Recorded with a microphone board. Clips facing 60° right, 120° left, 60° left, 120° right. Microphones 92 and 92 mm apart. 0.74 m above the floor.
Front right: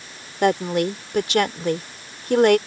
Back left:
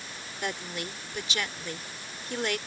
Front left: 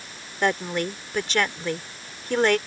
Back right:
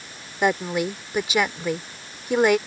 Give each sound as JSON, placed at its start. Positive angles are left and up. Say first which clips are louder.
{"t": 0.4, "sound": "a woman speaking", "louder": "front right 16 dB, back right 2 dB", "azimuth_deg": -40}